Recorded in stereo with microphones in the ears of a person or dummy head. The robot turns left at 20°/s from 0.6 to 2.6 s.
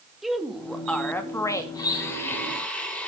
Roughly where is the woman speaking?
Centre.